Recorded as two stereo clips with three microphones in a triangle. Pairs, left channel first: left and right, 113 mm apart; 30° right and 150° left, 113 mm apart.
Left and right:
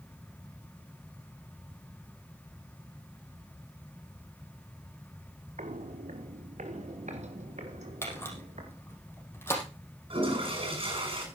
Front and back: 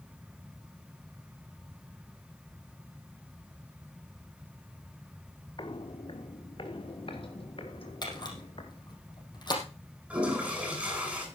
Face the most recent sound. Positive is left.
turn(degrees=-130)